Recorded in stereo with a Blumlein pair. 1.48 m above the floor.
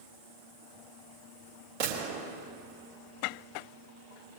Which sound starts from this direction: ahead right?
A gunshot, at 1.8 s.